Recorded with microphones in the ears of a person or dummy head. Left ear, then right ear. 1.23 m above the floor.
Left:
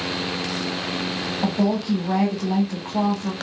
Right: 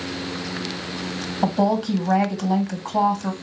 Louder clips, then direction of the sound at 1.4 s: Right 5 dB; 65° right (ahead or behind).